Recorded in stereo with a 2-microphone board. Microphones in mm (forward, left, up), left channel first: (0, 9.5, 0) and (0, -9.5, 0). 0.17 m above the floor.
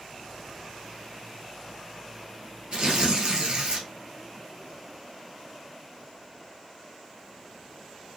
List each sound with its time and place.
2.7 s tearing paper: 50° right (ahead or behind), 1.3 m